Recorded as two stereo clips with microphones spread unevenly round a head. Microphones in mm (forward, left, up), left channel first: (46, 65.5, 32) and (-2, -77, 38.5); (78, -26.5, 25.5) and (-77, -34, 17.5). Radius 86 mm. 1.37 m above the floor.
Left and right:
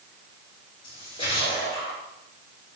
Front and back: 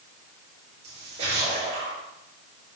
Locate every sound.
0.8 s a splash: 130° left, 5 m